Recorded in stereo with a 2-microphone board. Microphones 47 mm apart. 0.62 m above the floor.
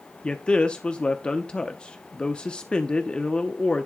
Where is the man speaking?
20° left (ahead or behind), 0.7 m.